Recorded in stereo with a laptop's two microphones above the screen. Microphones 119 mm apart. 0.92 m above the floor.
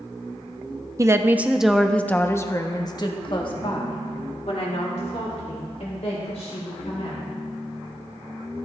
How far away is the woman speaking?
About 0.9 m.